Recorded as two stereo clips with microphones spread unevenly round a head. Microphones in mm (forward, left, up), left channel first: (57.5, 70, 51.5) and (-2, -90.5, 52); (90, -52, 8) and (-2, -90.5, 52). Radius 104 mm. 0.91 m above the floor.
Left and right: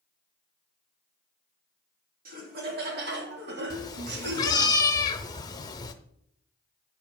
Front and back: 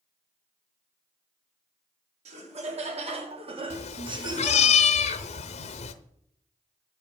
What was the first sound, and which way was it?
Laughter, 145° right.